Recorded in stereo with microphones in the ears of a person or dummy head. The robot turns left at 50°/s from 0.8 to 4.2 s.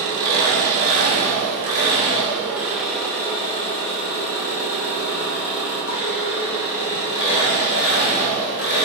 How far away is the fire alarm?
I don't hear a fire alarm.